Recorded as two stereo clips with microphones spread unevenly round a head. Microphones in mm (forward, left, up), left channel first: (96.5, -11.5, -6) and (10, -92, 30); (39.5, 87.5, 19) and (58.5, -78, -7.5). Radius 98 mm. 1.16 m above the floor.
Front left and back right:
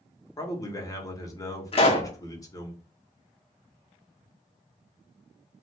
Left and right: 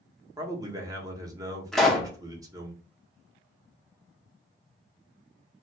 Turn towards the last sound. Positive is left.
turn(degrees=10)